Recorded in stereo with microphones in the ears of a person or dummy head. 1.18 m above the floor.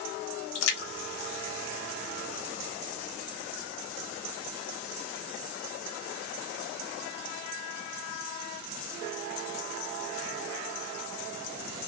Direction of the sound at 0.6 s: 85° left.